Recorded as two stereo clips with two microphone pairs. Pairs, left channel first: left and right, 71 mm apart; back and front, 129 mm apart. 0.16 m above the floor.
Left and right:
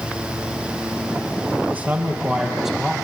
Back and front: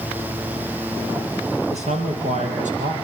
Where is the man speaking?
25° right, 4.5 m; by 2.9 s straight ahead, 4.5 m.